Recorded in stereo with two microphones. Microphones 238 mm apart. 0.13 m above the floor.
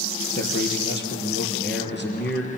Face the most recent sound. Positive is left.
turn(degrees=50)  # may be behind; listen again after turning